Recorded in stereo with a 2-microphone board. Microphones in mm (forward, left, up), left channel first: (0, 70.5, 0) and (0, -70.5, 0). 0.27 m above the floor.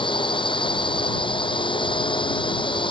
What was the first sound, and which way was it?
A drone, 35° left (ahead or behind).